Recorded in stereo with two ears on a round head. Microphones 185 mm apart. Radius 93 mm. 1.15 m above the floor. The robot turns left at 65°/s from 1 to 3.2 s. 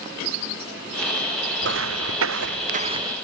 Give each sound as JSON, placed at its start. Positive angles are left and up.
{"t": 1.6, "sound": "footsteps", "side_deg": -55}